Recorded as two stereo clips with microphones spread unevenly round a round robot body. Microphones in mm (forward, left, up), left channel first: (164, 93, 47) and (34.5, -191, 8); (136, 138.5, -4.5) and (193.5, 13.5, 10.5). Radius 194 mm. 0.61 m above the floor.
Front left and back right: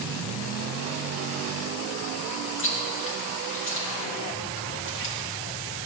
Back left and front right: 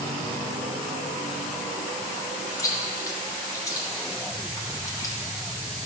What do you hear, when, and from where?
2.6 s chewing: 90° left, 1.2 m